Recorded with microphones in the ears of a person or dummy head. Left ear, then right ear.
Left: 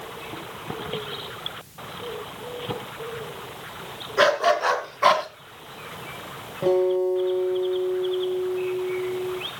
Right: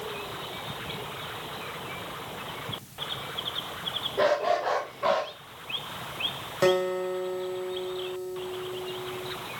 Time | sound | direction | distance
4.2 | a dog barking | 65° left (ahead or behind) | 3.5 m
6.6 | a guitar | 60° right (ahead or behind) | 3.5 m